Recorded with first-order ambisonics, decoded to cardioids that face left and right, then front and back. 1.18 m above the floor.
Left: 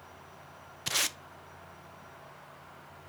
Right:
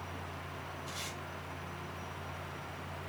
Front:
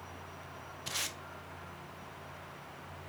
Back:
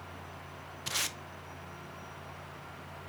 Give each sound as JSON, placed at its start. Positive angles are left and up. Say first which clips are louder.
{"t": 0.9, "sound": "tape being pulled", "louder": "left 14 dB, back 3 dB", "azimuth_deg": 105, "distance_m": 0.5}